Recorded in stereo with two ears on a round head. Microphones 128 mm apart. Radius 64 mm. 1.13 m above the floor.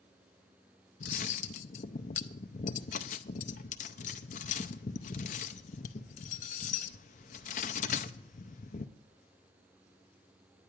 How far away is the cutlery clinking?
About 0.6 m.